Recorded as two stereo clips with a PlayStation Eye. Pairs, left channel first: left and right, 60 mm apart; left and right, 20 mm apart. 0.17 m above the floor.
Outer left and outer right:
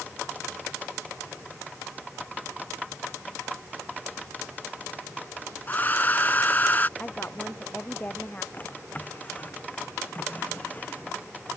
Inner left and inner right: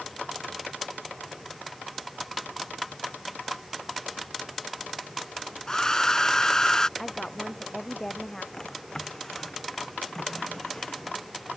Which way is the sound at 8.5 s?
25° left (ahead or behind).